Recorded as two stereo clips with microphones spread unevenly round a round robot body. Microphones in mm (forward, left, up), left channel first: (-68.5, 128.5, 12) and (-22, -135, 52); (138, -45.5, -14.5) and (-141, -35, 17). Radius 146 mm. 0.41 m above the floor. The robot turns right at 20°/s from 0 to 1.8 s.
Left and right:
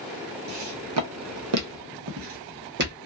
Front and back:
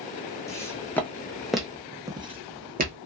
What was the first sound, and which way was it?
Footsteps, 85° right.